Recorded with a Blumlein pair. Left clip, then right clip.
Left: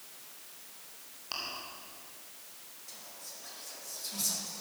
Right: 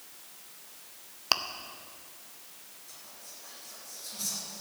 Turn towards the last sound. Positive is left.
turn(degrees=70)